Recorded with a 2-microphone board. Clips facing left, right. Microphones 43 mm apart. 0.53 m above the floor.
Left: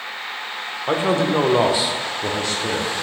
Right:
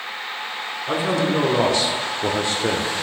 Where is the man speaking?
45° left (ahead or behind), 1.1 m; by 2.9 s 45° right (ahead or behind), 0.9 m.